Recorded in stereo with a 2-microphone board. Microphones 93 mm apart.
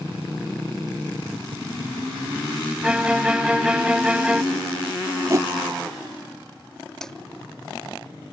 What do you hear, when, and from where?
2.8 s a violin: 10° right (ahead or behind)
5.3 s a whoosh: 35° right (ahead or behind)
7.0 s a snare drum: 5° left (ahead or behind)